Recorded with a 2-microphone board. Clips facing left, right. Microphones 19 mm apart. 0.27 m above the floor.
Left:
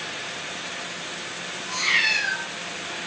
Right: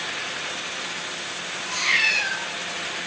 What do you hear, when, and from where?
1.7 s a cat meowing: 15° right (ahead or behind), 5.5 m